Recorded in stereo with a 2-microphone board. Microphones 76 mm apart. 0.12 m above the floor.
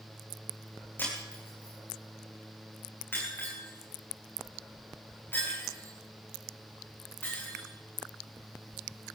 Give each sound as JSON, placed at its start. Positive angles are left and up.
{"t": 1.0, "sound": "breaking glass", "side_deg": 30, "distance_m": 7.5}